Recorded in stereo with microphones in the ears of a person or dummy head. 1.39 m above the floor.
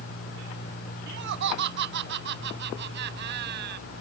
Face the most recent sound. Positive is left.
turn(degrees=-60)  # may be behind; listen again after turning